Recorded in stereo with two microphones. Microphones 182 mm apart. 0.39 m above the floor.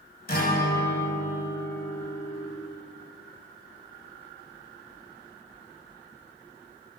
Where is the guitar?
55° left (ahead or behind), 2.0 m.